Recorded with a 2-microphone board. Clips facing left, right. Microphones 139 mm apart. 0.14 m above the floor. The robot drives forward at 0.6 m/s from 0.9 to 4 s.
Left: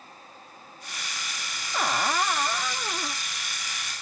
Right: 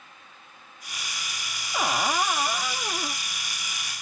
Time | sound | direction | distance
1.7 | a cupboard door | 10° right (ahead or behind) | ?